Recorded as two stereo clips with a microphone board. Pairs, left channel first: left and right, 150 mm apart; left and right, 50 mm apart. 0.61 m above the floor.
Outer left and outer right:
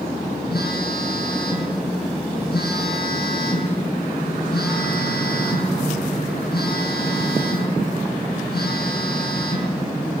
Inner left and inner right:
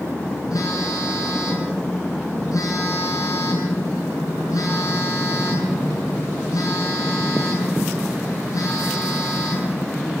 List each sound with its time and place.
0.5 s a phone buzzing: 80° left, 7.5 m